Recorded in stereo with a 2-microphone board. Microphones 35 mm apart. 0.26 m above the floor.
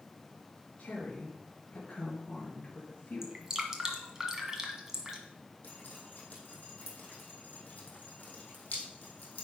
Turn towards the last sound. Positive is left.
turn(degrees=50)  # may be behind; listen again after turning